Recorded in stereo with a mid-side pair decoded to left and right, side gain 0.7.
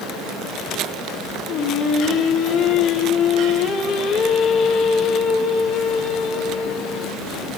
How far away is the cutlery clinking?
No cutlery clinking in this recording.